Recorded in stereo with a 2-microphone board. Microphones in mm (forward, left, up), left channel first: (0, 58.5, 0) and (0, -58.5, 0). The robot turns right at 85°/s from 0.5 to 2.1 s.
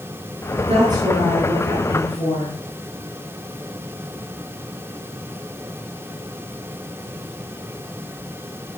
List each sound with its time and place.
0.6 s a woman speaking: 60° right, 8 m; by 2.5 s 65° left, 8 m